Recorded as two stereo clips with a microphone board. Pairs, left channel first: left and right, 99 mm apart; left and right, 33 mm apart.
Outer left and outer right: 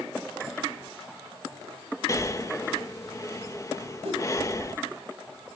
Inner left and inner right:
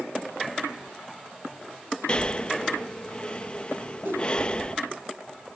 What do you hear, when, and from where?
2.1 s breathing: 30° left (ahead or behind), 0.7 m
4.0 s a whoosh: 80° right, 6.5 m